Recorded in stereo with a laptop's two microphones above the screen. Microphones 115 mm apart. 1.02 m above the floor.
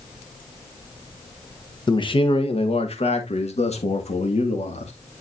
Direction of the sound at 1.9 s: 40° left (ahead or behind).